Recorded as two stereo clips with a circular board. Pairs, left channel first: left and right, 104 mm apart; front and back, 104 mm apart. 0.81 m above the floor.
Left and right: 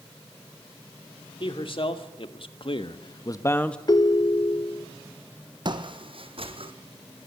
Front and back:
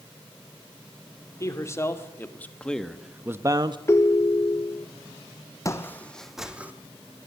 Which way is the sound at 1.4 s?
60° left.